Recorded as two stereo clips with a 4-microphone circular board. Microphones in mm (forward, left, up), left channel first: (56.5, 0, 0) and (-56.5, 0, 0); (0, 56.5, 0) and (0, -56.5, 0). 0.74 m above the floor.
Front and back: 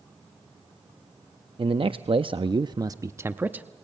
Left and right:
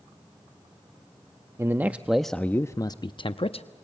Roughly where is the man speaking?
Behind right.